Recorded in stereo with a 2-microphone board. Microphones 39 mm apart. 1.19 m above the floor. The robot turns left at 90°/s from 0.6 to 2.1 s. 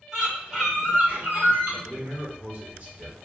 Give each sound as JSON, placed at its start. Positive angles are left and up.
{"t": 0.1, "sound": "a bird", "azimuth_deg": -10, "distance_m": 1.6}
{"t": 1.8, "sound": "a man speaking", "side_deg": -60, "distance_m": 1.1}